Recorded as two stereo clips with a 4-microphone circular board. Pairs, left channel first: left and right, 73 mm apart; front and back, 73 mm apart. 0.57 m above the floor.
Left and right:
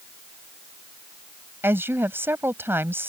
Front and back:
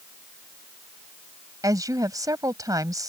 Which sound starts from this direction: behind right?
A woman speaking, at 1.6 s.